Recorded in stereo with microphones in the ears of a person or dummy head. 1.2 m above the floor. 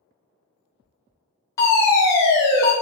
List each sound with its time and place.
1.6 s a fire alarm: 15° left (ahead or behind), 1.0 m